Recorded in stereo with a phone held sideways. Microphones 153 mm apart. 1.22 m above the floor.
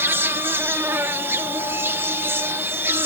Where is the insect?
15° right (ahead or behind).